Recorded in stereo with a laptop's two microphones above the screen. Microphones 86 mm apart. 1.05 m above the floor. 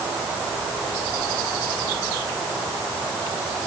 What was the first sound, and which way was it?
Only background noise.